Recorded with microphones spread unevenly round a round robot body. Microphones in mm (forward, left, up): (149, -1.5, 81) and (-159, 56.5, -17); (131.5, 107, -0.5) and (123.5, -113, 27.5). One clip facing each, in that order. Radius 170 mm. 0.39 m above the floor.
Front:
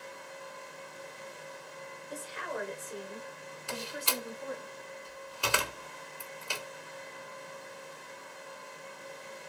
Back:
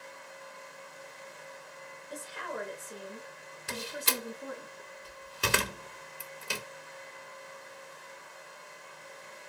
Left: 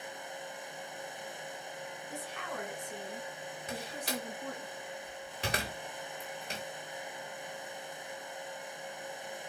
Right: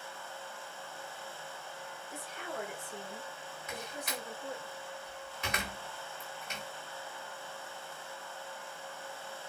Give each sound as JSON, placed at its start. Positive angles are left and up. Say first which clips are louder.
{"t": 2.1, "sound": "a woman speaking", "louder": "front 1 dB, even", "azimuth_deg": 80, "distance_m": 3.5}
{"t": 3.7, "sound": "a door slam", "louder": "back 1 dB, left 3 dB", "azimuth_deg": 130, "distance_m": 0.7}